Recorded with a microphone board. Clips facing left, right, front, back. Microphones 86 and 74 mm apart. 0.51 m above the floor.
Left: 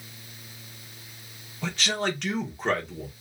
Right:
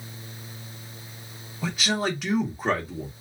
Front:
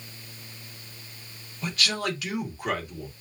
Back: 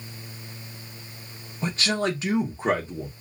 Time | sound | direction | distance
1.6 | a man speaking | 170° right | 1.5 m